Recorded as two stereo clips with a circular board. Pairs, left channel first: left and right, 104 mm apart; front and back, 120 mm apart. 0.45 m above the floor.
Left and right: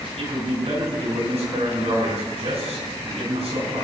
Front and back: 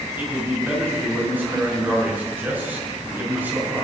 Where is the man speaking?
105° right, 7 m.